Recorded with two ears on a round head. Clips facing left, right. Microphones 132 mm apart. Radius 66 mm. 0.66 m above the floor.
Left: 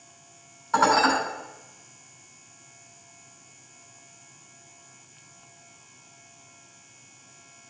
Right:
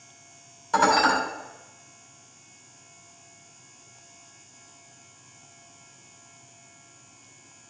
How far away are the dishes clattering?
About 3 m.